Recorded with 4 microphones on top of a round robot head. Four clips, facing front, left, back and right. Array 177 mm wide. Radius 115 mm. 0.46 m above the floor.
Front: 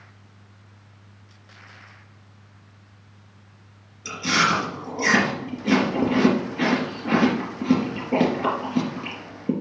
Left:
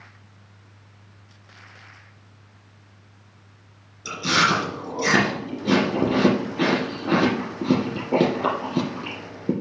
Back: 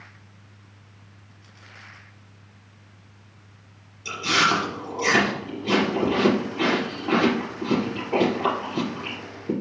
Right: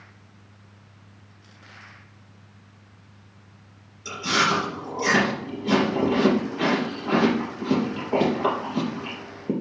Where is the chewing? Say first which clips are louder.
Left 2 dB, even; 60° left, 3 m.